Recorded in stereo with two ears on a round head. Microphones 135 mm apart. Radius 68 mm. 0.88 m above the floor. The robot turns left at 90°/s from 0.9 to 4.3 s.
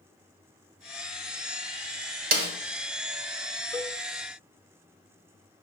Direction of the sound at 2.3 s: 65° right (ahead or behind).